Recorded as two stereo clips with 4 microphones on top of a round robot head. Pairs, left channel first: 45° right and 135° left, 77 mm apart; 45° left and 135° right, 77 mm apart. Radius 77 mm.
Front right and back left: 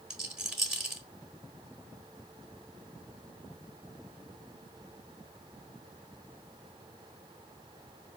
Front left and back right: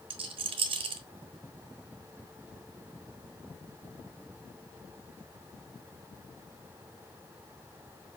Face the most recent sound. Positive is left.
turn(degrees=-140)